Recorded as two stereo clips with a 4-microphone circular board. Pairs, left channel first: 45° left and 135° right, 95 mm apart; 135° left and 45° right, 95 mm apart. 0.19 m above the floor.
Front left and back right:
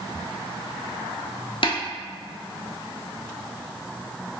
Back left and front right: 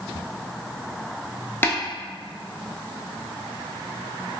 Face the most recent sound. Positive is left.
turn(degrees=65)